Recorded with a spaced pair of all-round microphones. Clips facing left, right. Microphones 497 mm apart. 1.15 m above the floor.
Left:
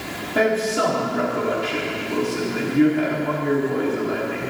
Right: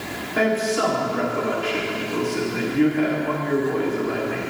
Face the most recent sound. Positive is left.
turn(degrees=55)  # may be behind; listen again after turning